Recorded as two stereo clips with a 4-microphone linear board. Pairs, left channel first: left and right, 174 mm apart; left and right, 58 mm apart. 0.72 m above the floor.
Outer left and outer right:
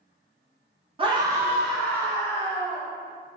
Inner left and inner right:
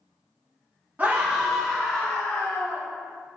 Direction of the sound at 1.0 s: 30° right (ahead or behind).